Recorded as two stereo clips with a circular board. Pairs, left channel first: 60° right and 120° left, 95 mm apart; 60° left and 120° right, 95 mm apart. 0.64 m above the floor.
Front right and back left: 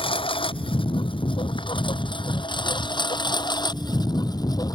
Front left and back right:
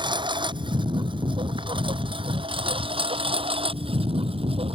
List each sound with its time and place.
0.0 s a lawn mower: 85° right; by 4.8 s 110° right